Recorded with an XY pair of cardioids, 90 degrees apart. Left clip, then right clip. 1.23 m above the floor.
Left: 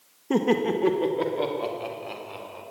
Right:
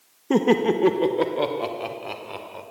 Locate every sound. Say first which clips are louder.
0.3 s laughter: right 4 dB; 25° right, 1.7 m; by 2.6 s 45° right, 5 m